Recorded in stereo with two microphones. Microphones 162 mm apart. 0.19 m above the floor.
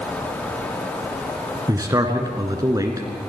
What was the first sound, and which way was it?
A man speaking, 20° right (ahead or behind).